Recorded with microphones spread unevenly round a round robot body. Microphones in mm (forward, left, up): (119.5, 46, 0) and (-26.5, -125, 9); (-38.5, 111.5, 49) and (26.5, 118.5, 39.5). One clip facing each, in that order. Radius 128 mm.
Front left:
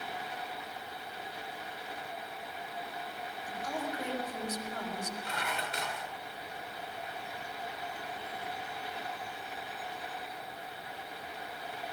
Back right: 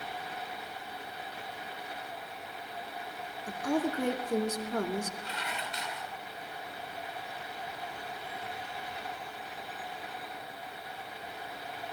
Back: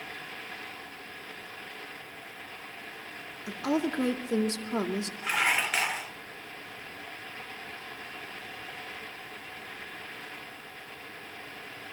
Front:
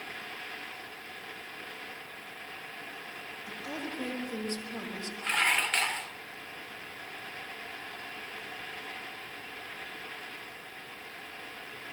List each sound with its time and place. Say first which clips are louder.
3.5 s a woman speaking: back right 9 dB, back 11 dB; straight behind, 2 m
5.2 s dishes clattering: front left 2 dB, even; 100° left, 1.5 m